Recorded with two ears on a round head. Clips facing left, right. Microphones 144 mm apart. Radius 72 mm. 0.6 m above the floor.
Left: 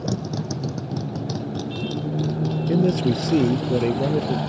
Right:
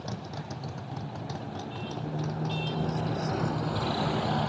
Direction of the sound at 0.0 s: 60° left (ahead or behind).